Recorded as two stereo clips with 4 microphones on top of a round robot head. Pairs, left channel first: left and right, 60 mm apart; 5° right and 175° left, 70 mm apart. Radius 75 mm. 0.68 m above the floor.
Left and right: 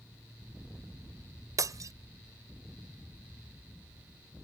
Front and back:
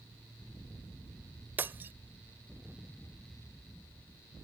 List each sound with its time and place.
1.6 s breaking glass: 115° right